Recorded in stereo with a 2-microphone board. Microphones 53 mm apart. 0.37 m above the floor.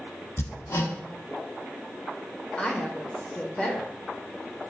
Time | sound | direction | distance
0.4 | hammering | 70° left (ahead or behind) | 1.0 m
2.6 | a woman speaking | 20° left (ahead or behind) | 0.9 m